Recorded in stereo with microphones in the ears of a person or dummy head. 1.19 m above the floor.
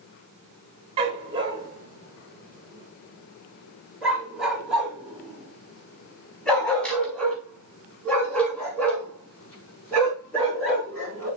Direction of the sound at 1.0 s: 30° right (ahead or behind).